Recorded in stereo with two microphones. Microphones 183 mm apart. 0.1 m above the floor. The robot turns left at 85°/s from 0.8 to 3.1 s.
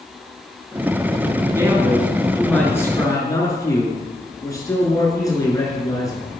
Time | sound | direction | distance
1.4 | a man speaking | 20° right (ahead or behind) | 1.8 m